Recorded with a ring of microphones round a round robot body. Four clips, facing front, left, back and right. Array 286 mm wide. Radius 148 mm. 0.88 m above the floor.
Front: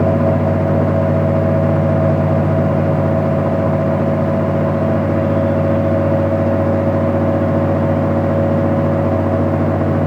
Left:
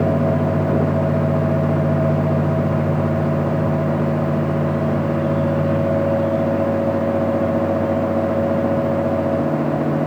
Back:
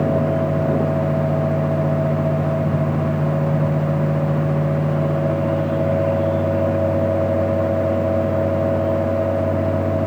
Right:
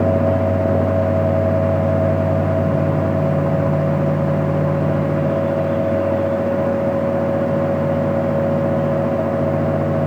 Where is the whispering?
I don't hear whispering.